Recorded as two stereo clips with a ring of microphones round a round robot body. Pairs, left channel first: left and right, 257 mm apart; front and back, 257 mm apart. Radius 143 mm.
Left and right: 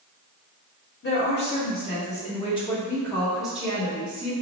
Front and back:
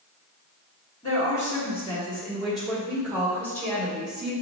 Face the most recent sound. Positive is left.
turn(degrees=-130)